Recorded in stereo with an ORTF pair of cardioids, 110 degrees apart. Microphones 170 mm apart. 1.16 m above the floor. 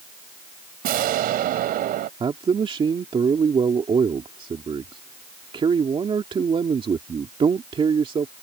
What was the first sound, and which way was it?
An explosion, 65° right.